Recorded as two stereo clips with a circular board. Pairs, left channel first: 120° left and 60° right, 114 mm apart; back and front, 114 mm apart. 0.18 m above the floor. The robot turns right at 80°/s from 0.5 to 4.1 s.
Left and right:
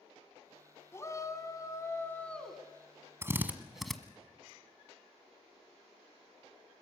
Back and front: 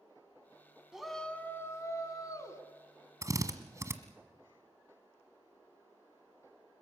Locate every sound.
0.9 s a shout: 80° left, 1.8 m; by 2.6 s 145° right, 1.8 m
3.2 s a drill: 20° right, 1.3 m; by 4.0 s 40° left, 1.3 m